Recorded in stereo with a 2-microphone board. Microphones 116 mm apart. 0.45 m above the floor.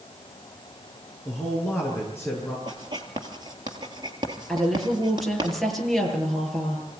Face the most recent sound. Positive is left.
turn(degrees=5)  # may be behind; listen again after turning